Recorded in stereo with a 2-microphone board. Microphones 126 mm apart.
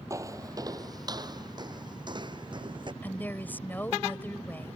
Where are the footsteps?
25° right (ahead or behind); by 2.9 s 40° right (ahead or behind).